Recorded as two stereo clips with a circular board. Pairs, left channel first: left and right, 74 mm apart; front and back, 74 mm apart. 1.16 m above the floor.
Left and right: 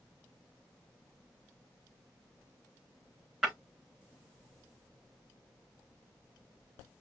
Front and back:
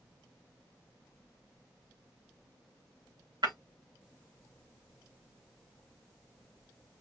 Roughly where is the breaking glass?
Behind.